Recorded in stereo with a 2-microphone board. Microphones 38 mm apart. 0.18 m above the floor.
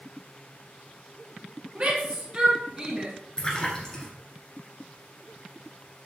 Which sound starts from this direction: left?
A splash, at 3.4 s.